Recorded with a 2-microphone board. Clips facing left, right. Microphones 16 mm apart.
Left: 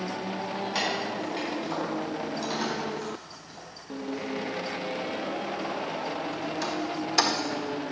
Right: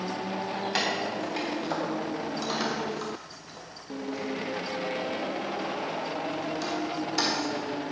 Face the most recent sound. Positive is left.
turn(degrees=30)  # may be behind; listen again after turning